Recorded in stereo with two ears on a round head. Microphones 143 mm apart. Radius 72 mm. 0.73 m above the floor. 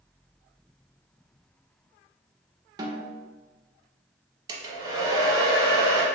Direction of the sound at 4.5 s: 25° right (ahead or behind).